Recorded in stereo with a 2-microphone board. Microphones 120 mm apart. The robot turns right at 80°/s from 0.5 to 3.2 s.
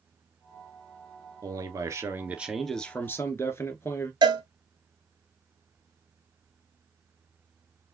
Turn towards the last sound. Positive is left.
turn(degrees=-40)  # may be behind; listen again after turning